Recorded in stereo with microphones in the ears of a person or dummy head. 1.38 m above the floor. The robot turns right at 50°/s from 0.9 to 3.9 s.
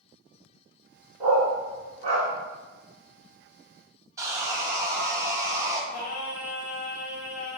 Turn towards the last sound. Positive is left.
turn(degrees=55)  # may be behind; listen again after turning